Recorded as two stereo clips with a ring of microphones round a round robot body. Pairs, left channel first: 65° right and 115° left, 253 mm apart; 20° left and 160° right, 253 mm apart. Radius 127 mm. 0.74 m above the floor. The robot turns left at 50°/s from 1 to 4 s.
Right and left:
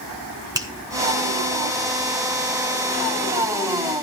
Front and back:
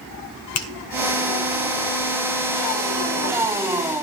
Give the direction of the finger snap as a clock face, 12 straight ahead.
11 o'clock.